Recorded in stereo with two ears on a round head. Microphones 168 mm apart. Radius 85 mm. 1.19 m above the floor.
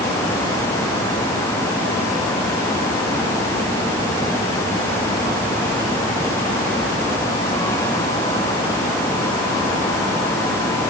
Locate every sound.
Only background noise.